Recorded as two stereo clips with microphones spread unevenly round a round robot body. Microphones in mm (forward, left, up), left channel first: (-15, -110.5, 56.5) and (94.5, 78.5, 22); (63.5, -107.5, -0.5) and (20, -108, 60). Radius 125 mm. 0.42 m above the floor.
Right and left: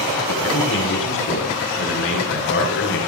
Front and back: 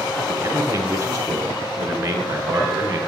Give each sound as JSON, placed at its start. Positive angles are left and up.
{"t": 0.3, "sound": "a man speaking", "azimuth_deg": -155, "distance_m": 6.5}